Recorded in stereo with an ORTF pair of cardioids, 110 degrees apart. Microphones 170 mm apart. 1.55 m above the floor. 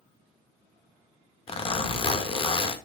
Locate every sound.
1.5 s a zipper: 35° left, 2.0 m